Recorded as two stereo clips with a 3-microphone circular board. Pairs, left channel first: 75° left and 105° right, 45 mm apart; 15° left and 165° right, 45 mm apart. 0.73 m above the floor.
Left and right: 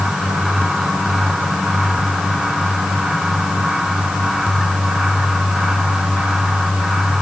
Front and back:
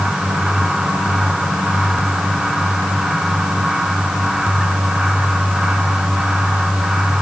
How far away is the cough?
No cough in this recording.